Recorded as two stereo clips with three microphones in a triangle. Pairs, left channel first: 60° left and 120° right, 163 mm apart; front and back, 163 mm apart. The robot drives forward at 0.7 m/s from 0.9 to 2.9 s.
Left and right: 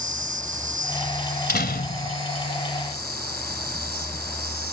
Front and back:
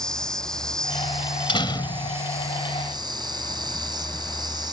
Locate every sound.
0.0 s an insect: 85° right; by 4.7 s 120° right
1.5 s a door slam: 60° left; by 2.2 s 70° left